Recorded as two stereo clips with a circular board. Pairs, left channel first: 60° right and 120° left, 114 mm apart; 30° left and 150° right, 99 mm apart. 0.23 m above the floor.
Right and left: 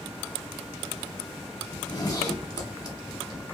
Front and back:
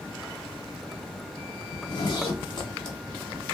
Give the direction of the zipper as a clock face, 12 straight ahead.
12 o'clock.